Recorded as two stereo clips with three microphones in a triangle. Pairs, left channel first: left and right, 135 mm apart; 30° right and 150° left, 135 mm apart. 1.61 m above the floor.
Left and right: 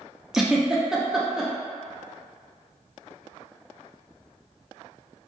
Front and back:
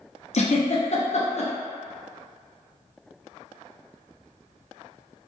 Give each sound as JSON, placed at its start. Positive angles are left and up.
{"t": 0.3, "sound": "a giggle", "azimuth_deg": -5, "distance_m": 0.5}